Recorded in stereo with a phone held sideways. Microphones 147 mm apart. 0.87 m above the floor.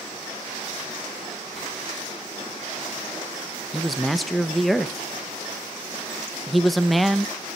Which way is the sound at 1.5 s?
Centre (ahead or behind).